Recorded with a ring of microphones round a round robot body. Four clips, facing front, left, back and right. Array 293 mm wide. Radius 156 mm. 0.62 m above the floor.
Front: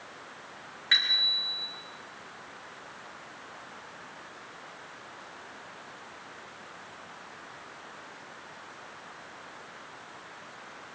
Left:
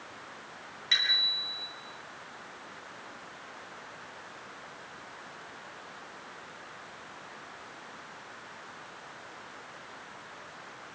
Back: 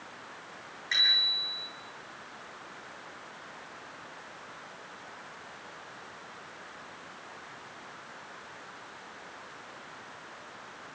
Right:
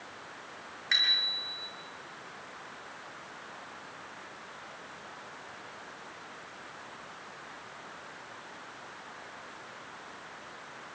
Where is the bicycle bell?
10° left, 7 m.